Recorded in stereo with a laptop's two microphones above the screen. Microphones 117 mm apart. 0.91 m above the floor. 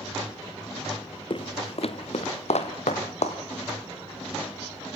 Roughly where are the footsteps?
Left.